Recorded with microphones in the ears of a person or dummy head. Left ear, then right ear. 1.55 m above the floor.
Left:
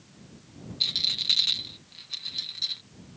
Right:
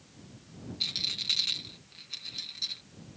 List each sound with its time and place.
0.8 s a rattle: 20° left (ahead or behind)